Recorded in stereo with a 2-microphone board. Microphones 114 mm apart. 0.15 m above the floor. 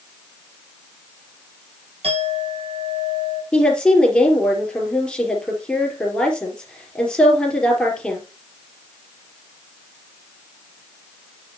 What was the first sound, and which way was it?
A clink, 60° right (ahead or behind).